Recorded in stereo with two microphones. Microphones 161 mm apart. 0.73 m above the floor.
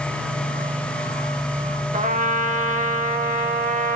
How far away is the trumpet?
About 0.6 m.